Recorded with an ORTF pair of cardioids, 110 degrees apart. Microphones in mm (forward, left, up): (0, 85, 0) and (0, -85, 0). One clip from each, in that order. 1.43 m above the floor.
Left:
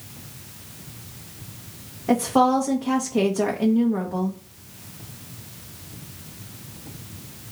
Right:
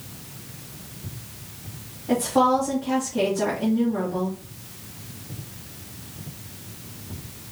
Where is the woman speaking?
65° left, 1.1 m.